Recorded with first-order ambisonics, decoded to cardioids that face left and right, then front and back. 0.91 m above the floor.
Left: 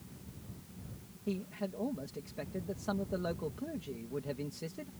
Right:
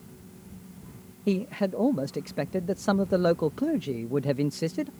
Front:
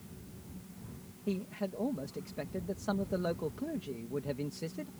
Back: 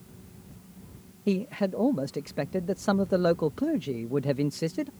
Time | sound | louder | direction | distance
1.3 | a man speaking | right 12 dB, back 9 dB | 130° right | ?